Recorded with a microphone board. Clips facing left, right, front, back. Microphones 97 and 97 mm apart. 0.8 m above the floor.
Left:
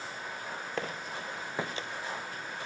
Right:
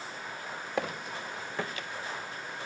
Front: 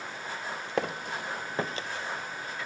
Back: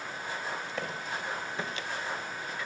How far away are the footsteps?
About 1.9 m.